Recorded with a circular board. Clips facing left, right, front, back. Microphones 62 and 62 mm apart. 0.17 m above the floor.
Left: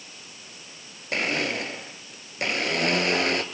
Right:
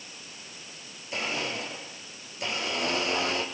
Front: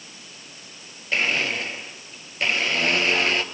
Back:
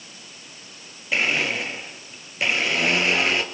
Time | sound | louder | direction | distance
1.1 | a blender | left 5 dB, back 1 dB | 95° left | 2 m